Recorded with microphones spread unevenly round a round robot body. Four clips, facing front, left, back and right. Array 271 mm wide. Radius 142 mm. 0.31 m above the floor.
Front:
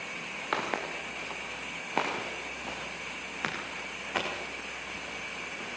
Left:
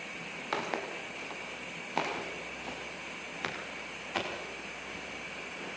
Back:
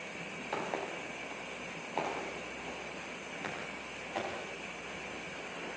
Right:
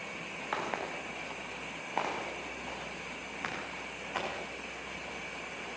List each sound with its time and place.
0.5 s footsteps: 35° left, 6.5 m; by 5.8 s 40° left, 9 m